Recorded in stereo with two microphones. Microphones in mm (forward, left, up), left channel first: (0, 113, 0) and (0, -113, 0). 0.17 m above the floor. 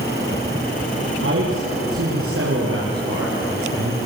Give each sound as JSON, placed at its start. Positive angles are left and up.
{"t": 1.2, "sound": "a man speaking", "side_deg": -60, "distance_m": 4.5}